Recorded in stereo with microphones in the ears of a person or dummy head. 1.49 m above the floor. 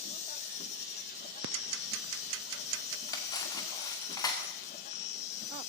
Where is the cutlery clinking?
15° left (ahead or behind), 2 m.